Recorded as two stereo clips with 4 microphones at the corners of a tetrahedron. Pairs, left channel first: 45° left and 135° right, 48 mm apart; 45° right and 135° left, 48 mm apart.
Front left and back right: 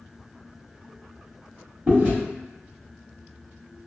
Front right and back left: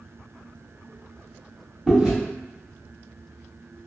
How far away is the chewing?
About 1.4 m.